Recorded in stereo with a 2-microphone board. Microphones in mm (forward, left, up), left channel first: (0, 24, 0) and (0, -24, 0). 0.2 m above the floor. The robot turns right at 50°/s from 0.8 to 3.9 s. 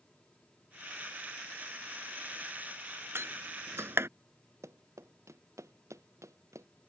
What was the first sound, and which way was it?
A door slam, 55° right (ahead or behind).